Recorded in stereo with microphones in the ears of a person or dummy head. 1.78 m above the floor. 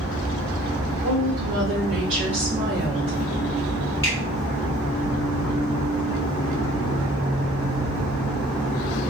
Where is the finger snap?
15° left (ahead or behind), 1.3 m.